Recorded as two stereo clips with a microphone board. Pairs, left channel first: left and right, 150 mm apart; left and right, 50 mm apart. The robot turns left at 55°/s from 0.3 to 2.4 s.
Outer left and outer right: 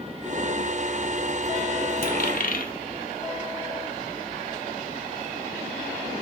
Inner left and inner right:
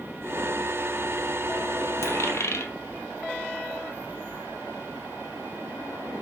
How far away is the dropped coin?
About 2.5 m.